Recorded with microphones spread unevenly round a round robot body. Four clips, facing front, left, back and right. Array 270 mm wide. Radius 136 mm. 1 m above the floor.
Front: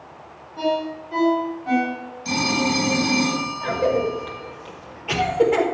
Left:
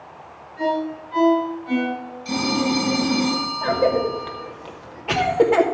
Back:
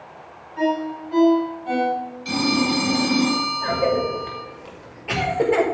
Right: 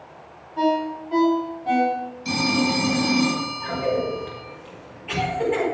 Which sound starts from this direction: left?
A cough, at 3.6 s.